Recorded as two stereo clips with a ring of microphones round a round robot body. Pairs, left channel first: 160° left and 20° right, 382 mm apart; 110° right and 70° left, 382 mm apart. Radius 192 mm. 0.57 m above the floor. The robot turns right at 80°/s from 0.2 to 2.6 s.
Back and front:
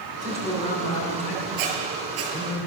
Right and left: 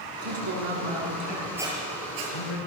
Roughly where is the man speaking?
Ahead left.